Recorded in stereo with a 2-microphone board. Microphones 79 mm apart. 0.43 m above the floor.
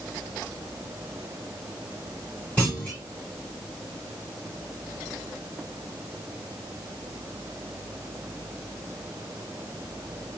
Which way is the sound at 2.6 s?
20° left (ahead or behind).